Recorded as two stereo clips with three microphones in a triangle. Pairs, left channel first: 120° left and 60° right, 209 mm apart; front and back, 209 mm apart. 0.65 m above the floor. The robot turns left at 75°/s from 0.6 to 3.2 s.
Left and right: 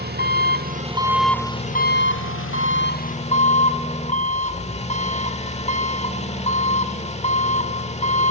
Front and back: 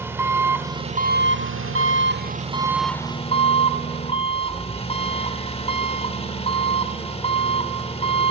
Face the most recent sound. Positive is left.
turn(degrees=65)